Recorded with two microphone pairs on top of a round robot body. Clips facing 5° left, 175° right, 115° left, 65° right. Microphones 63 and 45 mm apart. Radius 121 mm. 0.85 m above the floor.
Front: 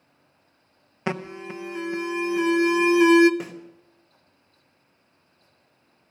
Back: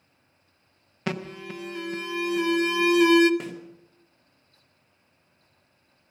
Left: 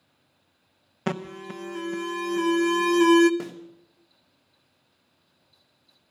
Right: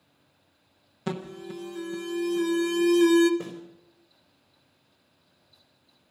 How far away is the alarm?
About 0.9 m.